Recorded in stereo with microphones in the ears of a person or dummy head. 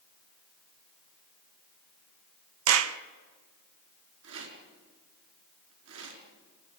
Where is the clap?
80° right, 1.2 m.